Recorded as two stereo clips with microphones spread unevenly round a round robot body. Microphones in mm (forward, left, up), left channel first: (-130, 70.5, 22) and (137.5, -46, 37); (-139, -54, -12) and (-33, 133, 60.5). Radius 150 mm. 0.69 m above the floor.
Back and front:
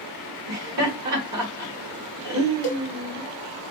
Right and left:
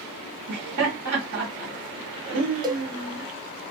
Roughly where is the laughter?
Ahead.